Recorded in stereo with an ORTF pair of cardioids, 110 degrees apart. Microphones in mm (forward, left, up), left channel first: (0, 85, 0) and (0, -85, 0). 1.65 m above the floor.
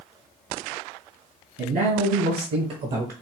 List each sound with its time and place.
1.6 s a man speaking: 70° right, 2.5 m; by 3.1 s 60° right, 0.8 m